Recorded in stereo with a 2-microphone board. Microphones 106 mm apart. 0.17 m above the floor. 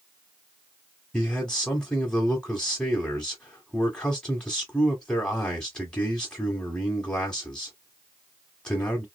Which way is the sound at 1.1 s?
10° left (ahead or behind).